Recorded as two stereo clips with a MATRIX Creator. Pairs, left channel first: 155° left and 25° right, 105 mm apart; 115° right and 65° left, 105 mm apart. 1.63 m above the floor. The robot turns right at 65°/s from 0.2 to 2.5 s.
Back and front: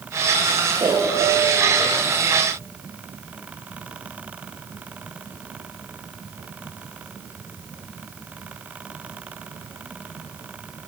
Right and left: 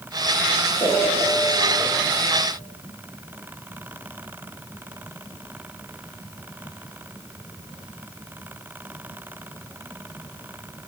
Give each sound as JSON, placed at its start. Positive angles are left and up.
{"t": 0.8, "sound": "a piano", "azimuth_deg": -70, "distance_m": 1.8}